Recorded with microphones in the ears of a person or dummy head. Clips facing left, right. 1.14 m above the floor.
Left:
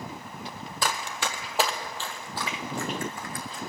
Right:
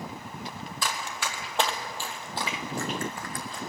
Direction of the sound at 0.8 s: 40° left (ahead or behind).